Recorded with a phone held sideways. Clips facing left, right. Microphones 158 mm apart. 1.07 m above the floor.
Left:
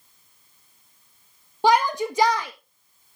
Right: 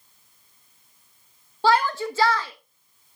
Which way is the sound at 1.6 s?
15° left (ahead or behind).